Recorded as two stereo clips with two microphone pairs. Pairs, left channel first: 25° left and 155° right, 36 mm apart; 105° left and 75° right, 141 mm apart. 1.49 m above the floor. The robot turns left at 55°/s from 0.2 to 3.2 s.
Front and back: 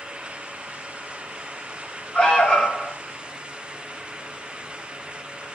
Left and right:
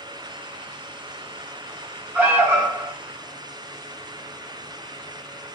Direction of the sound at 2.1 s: 10° right.